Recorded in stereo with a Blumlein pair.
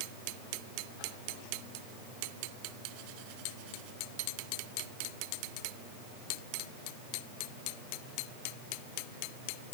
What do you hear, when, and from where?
Only background noise.